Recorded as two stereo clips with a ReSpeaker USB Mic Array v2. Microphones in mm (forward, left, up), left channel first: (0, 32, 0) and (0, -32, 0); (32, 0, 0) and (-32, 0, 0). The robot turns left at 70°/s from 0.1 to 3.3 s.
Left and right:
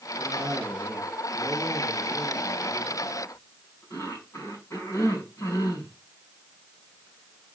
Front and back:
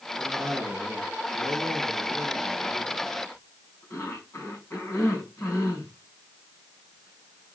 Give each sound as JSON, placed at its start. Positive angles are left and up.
{"t": 0.2, "sound": "a cough", "azimuth_deg": -95, "distance_m": 6.5}